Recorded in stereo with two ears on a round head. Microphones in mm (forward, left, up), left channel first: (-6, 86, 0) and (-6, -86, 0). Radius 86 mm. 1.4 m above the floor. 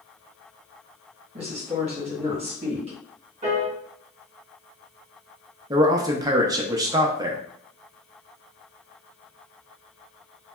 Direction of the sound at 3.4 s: 30° right (ahead or behind).